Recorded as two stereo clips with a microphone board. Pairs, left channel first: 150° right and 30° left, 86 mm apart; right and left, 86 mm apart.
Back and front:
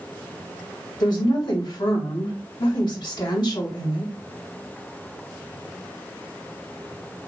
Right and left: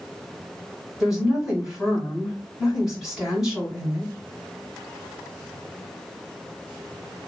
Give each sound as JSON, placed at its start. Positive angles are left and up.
{"t": 1.0, "sound": "a woman speaking", "azimuth_deg": 175, "distance_m": 2.5}